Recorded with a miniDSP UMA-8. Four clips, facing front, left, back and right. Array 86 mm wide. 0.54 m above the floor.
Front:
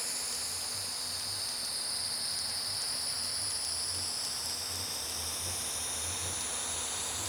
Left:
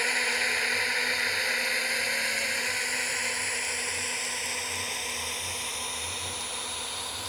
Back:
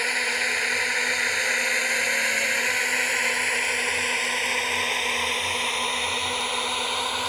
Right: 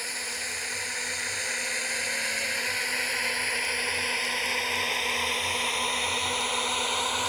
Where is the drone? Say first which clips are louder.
Left 8 dB, back 19 dB; 150° left; by 7.3 s 140° right.